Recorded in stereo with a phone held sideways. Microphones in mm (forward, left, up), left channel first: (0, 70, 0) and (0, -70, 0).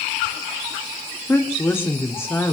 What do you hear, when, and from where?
1.3 s a woman speaking: 15° left (ahead or behind), 2 m